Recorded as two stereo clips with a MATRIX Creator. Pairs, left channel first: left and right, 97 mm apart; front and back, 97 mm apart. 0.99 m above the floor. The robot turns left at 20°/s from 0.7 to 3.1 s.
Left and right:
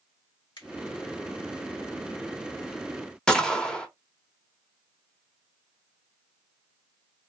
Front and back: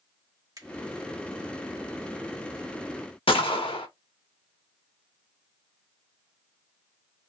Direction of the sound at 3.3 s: 10° left.